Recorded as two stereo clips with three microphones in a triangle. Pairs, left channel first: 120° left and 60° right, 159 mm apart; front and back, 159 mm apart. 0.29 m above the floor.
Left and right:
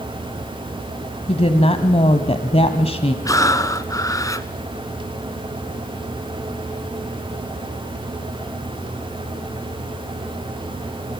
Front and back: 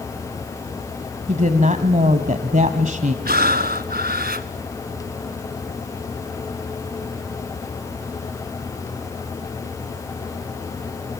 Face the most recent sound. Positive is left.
turn(degrees=-170)